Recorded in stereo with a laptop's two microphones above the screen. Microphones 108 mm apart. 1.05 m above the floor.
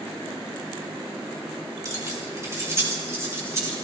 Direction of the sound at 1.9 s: 35° right (ahead or behind).